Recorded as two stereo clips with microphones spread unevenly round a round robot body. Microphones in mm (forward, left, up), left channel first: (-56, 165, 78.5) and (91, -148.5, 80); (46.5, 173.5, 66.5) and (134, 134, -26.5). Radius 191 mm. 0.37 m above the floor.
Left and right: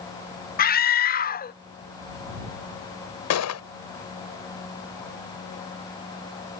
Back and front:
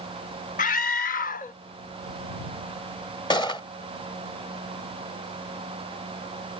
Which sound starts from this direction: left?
A gunshot, at 3.3 s.